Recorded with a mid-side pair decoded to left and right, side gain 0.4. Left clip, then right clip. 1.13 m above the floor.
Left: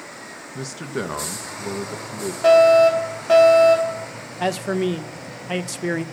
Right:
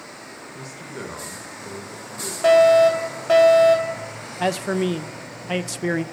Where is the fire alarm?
15° right, 3.5 m.